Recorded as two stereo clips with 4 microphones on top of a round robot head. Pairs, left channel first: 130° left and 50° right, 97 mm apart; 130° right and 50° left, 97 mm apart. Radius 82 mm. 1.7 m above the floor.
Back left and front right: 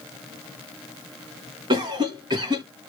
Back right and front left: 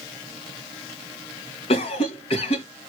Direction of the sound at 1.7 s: 100° right.